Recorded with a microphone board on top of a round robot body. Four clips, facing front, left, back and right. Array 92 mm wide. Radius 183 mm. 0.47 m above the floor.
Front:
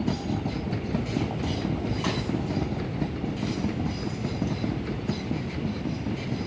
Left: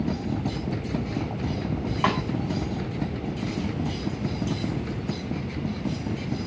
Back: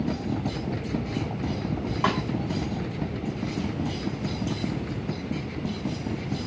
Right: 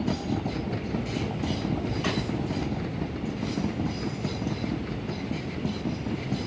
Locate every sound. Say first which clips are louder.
2.0 s a snare drum: left 7 dB, back 7 dB; 120° left, 1.4 m